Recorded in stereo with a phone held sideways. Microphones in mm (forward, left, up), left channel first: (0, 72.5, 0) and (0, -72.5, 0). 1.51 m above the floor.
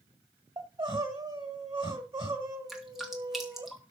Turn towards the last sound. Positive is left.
turn(degrees=0)  # may be behind; listen again after turning